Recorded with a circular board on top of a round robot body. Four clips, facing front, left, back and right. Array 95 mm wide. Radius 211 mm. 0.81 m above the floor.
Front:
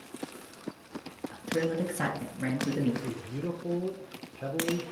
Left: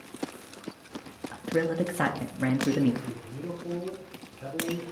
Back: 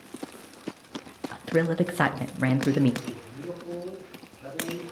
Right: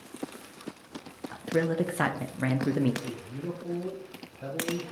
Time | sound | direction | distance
1.3 | a man speaking | 170° right | 0.6 m
3.0 | a man speaking | 10° right | 0.8 m